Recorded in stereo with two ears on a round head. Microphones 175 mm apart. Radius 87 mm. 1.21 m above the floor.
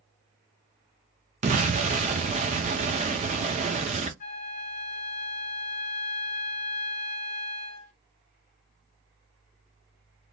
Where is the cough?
No cough in this recording.